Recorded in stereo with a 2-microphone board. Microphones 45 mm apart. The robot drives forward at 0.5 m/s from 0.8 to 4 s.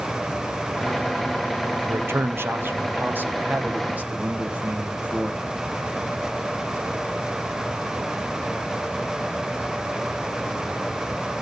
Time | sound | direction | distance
1.9 | a man speaking | 70° right (ahead or behind) | 1.0 m